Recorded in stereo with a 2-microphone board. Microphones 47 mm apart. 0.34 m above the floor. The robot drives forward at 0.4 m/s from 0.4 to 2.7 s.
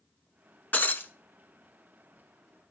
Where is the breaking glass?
40° left (ahead or behind), 0.8 m; by 1.1 s 50° left (ahead or behind), 0.7 m.